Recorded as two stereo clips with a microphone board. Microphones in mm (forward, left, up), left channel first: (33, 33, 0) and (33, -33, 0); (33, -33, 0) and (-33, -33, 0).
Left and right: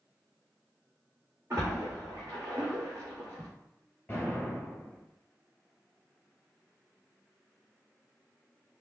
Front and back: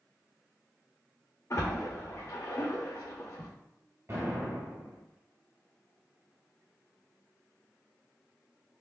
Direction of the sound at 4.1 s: 145° left.